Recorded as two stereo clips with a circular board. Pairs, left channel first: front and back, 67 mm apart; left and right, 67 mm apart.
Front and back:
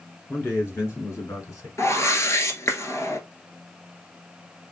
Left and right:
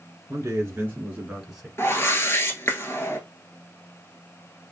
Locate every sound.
0.3 s a man speaking: 55° right, 2 m; by 1.7 s 5° right, 1.9 m
1.8 s a whoosh: 40° left, 1.1 m